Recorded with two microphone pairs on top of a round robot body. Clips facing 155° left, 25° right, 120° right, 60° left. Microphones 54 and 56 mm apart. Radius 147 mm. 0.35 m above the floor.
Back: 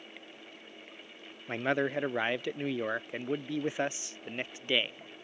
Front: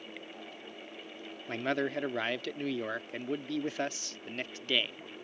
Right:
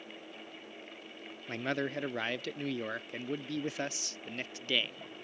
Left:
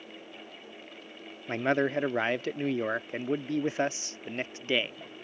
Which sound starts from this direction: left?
A man speaking, at 1.5 s.